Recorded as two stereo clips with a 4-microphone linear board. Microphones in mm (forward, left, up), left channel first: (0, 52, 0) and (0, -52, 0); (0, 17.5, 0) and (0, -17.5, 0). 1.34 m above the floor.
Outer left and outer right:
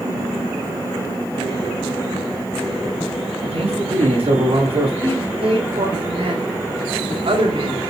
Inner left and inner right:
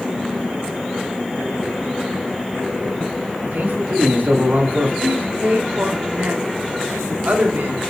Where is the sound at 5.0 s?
60° right (ahead or behind), 3 m.